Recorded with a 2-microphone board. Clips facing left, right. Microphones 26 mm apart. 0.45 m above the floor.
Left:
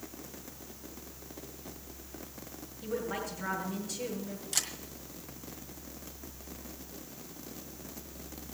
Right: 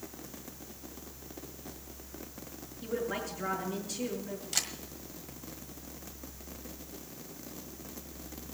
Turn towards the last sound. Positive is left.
turn(degrees=-10)  # may be behind; listen again after turning